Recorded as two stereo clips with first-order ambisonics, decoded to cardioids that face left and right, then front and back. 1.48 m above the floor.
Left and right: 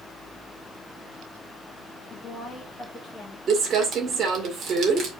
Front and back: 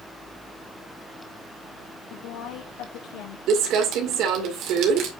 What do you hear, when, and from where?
2.1 s a woman speaking: 15° left, 2.5 m; by 3.4 s straight ahead, 2 m
3.5 s crumpling: 150° right, 2 m